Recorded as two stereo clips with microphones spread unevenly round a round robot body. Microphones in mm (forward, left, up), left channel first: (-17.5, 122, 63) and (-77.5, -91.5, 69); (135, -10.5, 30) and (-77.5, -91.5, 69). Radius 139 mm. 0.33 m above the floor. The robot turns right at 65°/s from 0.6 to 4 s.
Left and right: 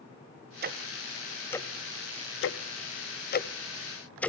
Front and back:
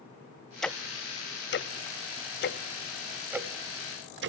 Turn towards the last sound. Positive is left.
turn(degrees=155)